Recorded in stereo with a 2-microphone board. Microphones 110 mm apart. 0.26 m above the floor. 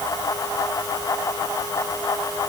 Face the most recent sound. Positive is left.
No sound to turn to.